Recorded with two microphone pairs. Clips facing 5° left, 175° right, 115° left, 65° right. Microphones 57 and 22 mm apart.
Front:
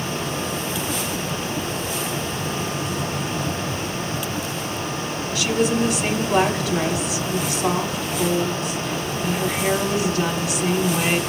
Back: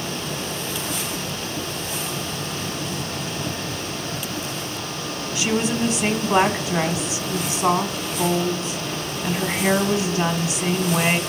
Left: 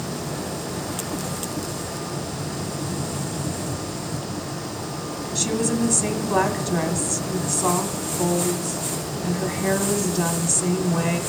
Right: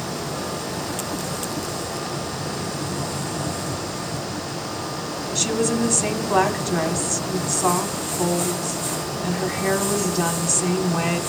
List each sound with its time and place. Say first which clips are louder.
5.3 s a woman speaking: front 2 dB, right 1 dB; 150° right, 1.2 m